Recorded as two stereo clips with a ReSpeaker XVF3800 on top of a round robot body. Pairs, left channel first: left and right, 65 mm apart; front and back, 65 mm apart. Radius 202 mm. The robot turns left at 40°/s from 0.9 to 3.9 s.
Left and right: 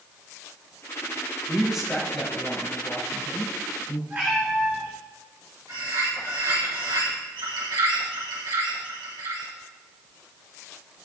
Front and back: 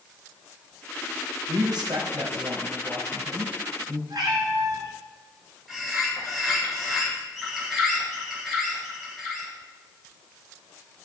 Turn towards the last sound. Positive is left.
turn(degrees=-90)